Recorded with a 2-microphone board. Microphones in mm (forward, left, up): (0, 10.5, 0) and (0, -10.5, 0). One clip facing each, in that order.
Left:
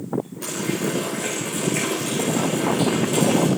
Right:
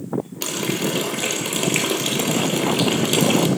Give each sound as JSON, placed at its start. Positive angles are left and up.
{"t": 0.4, "sound": "a running tap", "side_deg": -65, "distance_m": 2.0}